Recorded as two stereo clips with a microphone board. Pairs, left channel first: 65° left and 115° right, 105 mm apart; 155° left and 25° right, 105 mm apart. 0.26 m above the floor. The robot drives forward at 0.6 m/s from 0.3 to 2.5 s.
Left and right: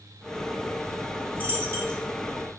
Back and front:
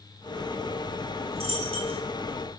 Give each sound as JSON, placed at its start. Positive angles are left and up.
{"t": 1.4, "sound": "a dropped coin", "azimuth_deg": -40, "distance_m": 1.6}